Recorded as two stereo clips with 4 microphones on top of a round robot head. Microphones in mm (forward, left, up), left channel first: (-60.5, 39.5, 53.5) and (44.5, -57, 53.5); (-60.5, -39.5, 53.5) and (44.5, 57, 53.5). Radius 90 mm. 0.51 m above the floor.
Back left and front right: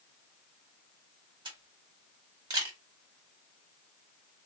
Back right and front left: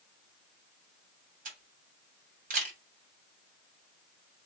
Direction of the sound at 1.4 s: 15° left.